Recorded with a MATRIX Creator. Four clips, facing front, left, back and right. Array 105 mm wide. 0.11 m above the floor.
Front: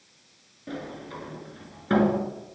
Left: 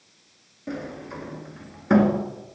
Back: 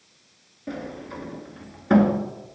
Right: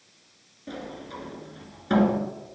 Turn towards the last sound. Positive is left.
turn(degrees=115)